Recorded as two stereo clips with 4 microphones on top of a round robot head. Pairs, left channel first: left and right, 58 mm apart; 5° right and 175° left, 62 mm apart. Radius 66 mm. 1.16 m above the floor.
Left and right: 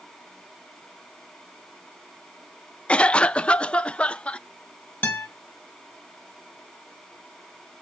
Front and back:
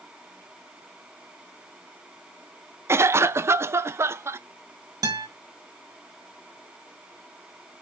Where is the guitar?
155° left, 4 m.